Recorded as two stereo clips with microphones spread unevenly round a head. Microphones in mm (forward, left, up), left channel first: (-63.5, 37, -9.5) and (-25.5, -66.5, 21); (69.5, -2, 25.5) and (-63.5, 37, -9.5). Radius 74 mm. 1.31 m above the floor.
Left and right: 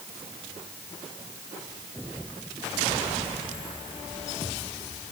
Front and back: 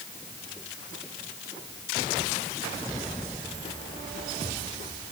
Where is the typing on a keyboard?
I don't hear typing on a keyboard.